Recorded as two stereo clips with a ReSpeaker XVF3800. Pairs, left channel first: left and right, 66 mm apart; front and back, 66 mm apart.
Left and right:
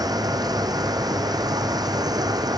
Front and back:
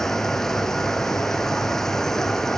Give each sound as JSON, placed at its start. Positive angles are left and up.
{"t": 0.0, "sound": "running water", "azimuth_deg": -85}